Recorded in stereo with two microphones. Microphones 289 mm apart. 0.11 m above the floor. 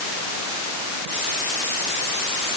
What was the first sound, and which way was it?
Only background noise.